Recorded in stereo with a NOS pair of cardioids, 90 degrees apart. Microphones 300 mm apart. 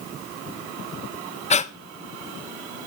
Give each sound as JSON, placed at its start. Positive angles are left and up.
{"t": 1.5, "sound": "breathing", "azimuth_deg": 25, "distance_m": 0.6}